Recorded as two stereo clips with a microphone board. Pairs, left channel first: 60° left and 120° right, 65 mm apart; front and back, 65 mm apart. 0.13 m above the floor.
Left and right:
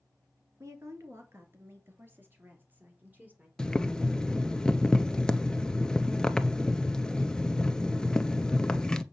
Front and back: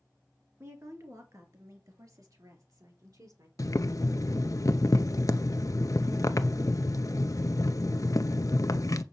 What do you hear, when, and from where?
0.6 s a woman speaking: 145° right, 2.5 m; by 3.5 s straight behind, 3.5 m
3.6 s boiling: 15° right, 0.7 m